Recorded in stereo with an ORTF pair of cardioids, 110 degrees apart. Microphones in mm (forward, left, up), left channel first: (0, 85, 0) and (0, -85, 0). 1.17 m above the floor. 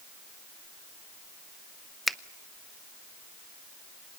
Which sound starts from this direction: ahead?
A finger snap, at 2.1 s.